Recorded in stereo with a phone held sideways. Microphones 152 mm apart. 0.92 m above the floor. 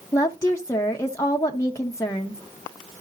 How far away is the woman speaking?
About 0.9 m.